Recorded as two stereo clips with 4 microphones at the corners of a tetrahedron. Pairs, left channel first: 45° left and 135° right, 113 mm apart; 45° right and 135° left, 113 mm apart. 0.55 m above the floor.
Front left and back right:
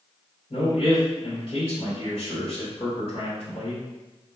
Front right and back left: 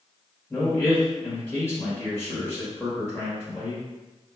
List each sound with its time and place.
0.5 s a man speaking: 25° left, 1.9 m